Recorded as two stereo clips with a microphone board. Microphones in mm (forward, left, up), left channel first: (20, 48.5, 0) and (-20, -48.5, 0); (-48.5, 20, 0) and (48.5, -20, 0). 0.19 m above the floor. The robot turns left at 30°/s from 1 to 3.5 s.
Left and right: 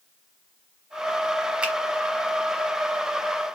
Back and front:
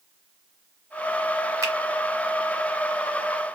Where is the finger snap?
40° right, 1.0 m; by 1.7 s 45° right, 1.0 m.